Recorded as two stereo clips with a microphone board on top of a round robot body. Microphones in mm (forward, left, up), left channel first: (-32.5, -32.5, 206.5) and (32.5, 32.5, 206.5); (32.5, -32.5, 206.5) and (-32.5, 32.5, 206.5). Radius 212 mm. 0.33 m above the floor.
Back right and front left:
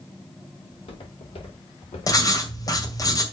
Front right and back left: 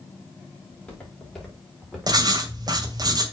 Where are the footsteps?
120° right, 4.5 m; by 2.9 s 145° right, 3.5 m.